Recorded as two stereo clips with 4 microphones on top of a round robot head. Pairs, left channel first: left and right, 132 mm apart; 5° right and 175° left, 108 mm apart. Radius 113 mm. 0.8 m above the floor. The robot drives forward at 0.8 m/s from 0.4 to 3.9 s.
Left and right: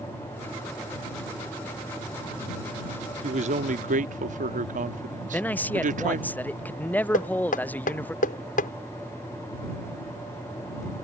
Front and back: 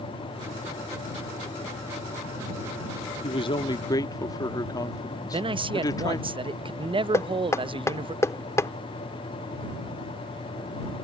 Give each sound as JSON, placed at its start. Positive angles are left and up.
{"t": 3.2, "sound": "a man speaking", "azimuth_deg": -50}
{"t": 5.3, "sound": "a man speaking", "azimuth_deg": 165}
{"t": 7.1, "sound": "knocking", "azimuth_deg": 60}